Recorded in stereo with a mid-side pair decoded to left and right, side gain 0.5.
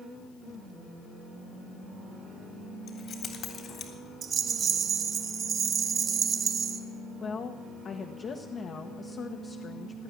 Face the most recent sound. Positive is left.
turn(degrees=45)